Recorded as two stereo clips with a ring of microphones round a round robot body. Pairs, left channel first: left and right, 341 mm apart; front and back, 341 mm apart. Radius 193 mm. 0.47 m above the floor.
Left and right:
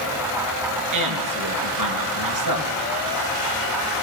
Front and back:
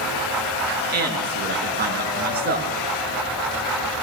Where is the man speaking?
120° right, 6.5 m.